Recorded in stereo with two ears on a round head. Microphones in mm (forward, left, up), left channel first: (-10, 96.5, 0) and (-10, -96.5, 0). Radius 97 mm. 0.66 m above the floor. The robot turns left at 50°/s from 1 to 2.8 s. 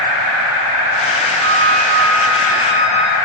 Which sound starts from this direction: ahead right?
A flute, at 1.4 s.